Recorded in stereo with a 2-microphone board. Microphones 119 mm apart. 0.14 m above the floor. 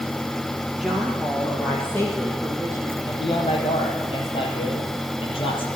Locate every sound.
0.8 s a woman speaking: 5° right (ahead or behind), 2.5 m; by 3.0 s 25° left (ahead or behind), 5 m
3.0 s a man speaking: 55° left (ahead or behind), 4 m